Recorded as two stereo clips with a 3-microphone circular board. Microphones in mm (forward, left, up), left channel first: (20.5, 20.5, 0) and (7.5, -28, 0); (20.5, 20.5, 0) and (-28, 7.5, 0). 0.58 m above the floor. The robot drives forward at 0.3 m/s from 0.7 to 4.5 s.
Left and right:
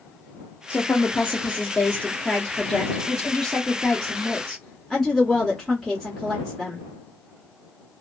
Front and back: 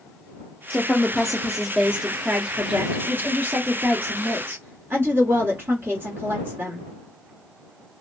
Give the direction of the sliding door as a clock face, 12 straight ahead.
No sliding door in this recording.